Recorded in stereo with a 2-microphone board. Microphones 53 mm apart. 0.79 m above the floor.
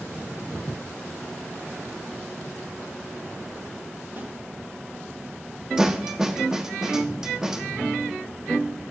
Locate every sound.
4.2 s a snare drum: 35° right (ahead or behind), 4.5 m
5.8 s a snare drum: 15° right (ahead or behind), 1.2 m